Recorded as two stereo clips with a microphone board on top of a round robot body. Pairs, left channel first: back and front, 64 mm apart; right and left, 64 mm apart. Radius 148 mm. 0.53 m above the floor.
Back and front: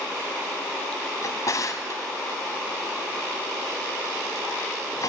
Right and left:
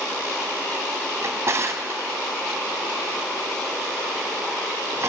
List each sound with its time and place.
1.2 s a drawer: 140° left, 1.1 m